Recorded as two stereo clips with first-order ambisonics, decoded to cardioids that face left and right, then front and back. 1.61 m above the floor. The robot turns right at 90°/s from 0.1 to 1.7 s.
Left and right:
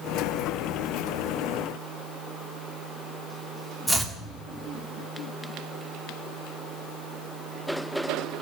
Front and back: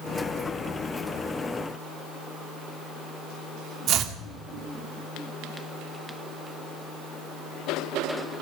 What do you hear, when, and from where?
3.9 s chopping: 175° left, 1.4 m